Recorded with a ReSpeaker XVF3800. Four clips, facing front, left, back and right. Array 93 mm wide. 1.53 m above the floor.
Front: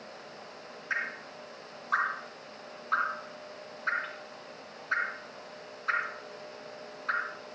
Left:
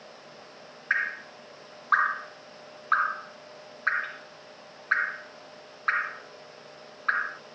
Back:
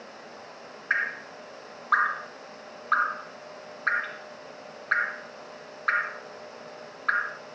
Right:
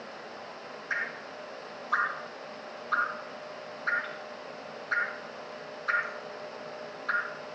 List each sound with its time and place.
0.9 s dripping: 135° left, 1.6 m